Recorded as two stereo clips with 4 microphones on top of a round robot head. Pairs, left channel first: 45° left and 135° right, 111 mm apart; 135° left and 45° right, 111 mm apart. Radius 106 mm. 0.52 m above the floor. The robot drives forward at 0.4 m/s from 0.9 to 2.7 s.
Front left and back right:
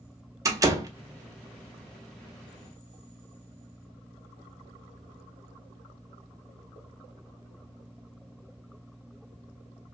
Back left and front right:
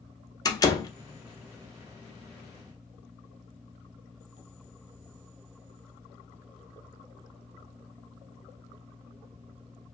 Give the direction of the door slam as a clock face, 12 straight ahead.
6 o'clock.